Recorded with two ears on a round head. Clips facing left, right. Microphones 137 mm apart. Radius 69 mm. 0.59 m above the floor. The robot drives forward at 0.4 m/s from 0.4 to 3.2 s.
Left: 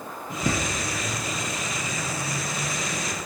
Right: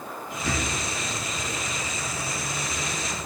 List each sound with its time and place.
0.3 s a bird: 85° left, 3.5 m; by 3.2 s 70° left (ahead or behind), 3.5 m